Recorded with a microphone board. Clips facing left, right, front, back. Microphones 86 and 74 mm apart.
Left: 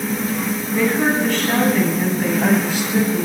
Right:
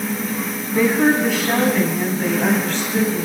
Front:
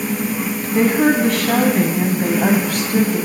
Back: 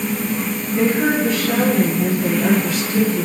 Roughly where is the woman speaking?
Ahead.